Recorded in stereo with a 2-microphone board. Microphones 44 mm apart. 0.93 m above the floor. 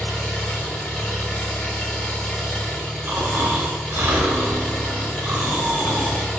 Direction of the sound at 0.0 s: 30° left (ahead or behind).